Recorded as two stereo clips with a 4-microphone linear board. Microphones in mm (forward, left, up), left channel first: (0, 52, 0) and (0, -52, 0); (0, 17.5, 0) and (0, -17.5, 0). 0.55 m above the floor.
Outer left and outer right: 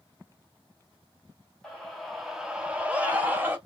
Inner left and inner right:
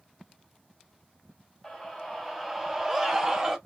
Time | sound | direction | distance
1.6 | a scream | 5° left (ahead or behind) | 0.9 m